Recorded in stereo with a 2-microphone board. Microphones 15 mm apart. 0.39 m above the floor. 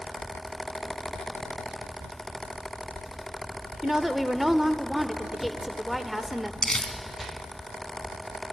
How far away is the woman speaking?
About 0.9 m.